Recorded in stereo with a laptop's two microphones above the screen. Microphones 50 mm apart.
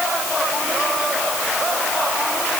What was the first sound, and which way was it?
Only background noise.